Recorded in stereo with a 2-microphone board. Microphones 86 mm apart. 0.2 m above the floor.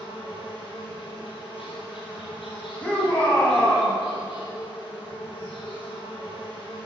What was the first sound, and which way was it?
An insect, 80° left.